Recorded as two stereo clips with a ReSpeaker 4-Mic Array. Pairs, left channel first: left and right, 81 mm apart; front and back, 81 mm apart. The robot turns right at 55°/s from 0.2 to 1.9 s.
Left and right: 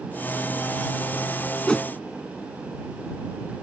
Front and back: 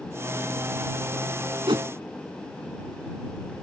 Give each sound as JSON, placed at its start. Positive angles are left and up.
{"t": 1.7, "sound": "a whoosh", "azimuth_deg": 170}